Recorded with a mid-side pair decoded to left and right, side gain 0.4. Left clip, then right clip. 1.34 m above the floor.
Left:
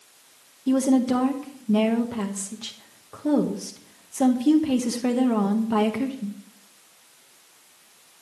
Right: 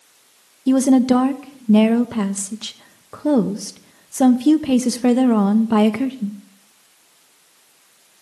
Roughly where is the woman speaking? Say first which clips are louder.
Right 6 dB; ahead right.